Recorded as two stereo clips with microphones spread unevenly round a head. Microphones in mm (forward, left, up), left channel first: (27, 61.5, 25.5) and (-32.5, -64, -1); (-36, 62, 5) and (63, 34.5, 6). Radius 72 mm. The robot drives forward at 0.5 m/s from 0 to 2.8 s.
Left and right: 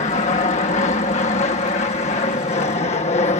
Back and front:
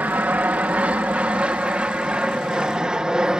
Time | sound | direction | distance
0.0 | an aircraft | 50° left | ?